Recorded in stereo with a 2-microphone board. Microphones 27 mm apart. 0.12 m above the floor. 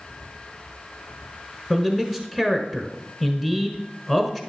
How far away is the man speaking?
About 1.1 m.